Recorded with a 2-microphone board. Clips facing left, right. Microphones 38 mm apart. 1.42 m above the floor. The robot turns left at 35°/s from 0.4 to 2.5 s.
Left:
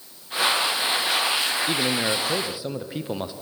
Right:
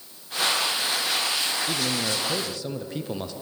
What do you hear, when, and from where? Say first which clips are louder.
1.7 s a man speaking: left 3 dB; 35° left (ahead or behind), 0.5 m; by 3.3 s 15° left (ahead or behind), 0.5 m